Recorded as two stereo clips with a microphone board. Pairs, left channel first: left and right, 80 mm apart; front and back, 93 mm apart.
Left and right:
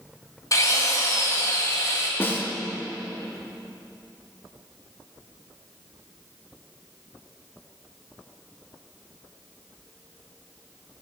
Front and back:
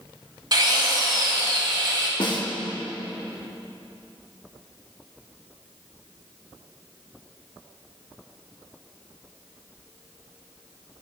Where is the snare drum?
30° left, 1.2 m.